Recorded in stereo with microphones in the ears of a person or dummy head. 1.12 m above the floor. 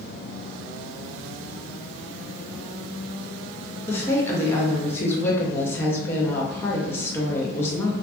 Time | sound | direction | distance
3.9 | a woman speaking | 15° left (ahead or behind) | 0.6 m